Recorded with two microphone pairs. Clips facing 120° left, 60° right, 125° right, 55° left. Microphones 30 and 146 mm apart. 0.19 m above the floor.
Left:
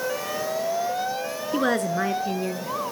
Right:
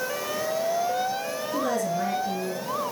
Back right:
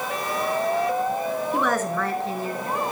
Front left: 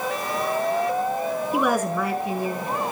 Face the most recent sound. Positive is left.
turn(degrees=120)